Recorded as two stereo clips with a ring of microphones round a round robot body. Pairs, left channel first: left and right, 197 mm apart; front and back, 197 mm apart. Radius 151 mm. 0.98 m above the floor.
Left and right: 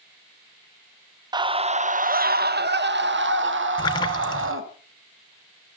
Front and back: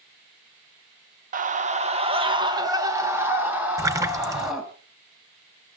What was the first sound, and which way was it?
A scream, 155° right.